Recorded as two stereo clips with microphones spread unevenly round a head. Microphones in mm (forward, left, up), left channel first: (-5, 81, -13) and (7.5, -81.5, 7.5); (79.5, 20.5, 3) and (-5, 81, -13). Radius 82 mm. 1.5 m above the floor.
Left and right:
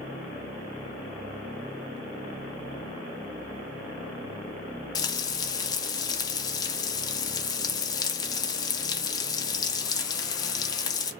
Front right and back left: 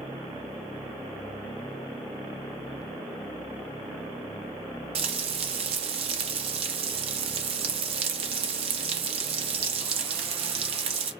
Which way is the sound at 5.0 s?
160° left.